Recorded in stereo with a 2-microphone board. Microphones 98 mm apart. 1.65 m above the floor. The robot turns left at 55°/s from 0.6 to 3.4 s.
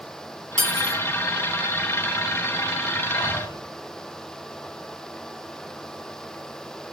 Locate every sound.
0.6 s cutlery clinking: 5° left (ahead or behind), 3 m; by 1.0 s 25° left (ahead or behind), 3 m
3.1 s breathing: 80° left, 7.5 m; by 3.6 s 65° left (ahead or behind), 7.5 m